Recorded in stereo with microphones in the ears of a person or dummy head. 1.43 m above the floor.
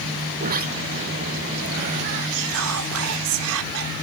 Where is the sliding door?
45° right (ahead or behind).